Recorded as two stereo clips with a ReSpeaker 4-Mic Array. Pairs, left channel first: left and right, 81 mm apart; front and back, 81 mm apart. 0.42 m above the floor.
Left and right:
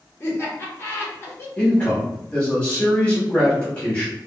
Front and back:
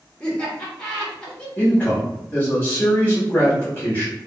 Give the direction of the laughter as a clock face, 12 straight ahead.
10 o'clock.